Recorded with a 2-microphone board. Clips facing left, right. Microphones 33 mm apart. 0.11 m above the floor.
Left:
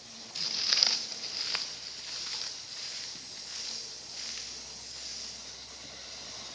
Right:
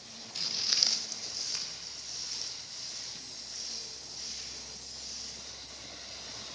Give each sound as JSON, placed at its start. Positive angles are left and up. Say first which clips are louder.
{"t": 0.3, "sound": "footsteps", "louder": "left 2 dB", "side_deg": 0, "distance_m": 0.5}